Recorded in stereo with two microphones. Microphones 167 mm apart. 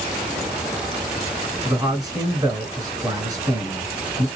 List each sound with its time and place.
1.6 s a man speaking: 25° right (ahead or behind), 1.7 m